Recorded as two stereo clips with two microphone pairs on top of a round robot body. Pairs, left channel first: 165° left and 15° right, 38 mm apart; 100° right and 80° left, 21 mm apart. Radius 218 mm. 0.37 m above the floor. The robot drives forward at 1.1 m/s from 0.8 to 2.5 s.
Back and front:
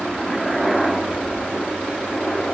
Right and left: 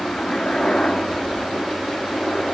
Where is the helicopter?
120° right; by 2.5 s 140° right.